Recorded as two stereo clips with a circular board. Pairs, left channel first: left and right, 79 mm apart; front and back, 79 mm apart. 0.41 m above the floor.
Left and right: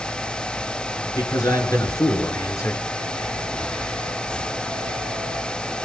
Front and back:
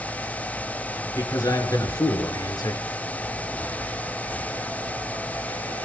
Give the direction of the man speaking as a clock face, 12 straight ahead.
10 o'clock.